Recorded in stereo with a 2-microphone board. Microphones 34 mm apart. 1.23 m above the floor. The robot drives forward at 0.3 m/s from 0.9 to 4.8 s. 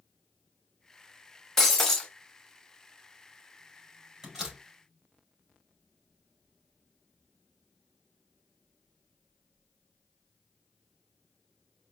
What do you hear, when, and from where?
1.6 s breaking glass: 10° left (ahead or behind), 1.2 m
4.2 s a door slam: centre (ahead or behind), 3.5 m